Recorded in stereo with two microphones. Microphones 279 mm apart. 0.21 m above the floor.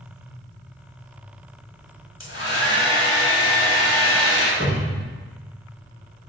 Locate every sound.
2.2 s a hair dryer: 50° left (ahead or behind), 0.7 m
4.6 s a cupboard door: 25° right (ahead or behind), 1.5 m